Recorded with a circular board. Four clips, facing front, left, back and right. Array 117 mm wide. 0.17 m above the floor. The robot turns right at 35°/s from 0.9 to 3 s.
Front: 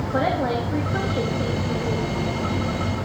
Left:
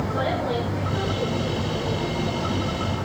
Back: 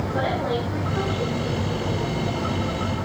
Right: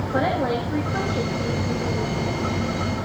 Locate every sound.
0.1 s a woman speaking: 40° right, 7 m; by 2.2 s 5° left, 7 m